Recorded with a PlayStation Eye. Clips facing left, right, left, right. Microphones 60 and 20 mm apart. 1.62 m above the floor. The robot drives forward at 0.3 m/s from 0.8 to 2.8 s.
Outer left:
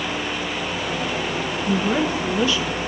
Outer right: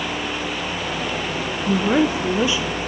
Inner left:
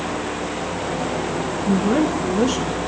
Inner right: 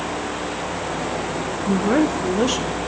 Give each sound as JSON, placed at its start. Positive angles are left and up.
{"t": 1.7, "sound": "a woman speaking", "side_deg": -25, "distance_m": 0.7}